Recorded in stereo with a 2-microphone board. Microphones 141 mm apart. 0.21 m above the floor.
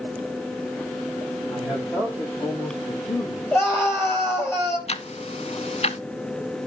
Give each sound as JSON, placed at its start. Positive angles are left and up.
{"t": 1.5, "sound": "a man speaking", "side_deg": 35, "distance_m": 8.0}
{"t": 3.5, "sound": "a scream", "side_deg": 15, "distance_m": 5.5}
{"t": 4.9, "sound": "ticking", "side_deg": 50, "distance_m": 0.6}